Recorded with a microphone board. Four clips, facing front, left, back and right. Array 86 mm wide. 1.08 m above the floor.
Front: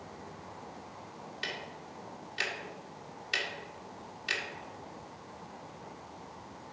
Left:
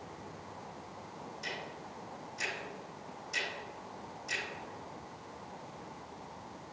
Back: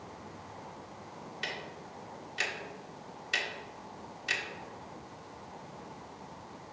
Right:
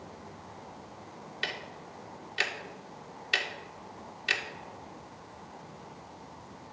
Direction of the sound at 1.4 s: 95° right.